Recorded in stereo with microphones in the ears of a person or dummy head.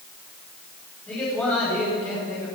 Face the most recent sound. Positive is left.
turn(degrees=10)  # may be behind; listen again after turning